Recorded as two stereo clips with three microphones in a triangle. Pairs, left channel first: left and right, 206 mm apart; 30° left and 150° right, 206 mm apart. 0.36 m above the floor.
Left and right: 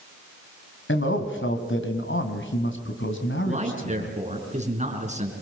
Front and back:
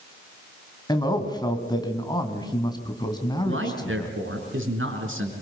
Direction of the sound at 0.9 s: 100° left.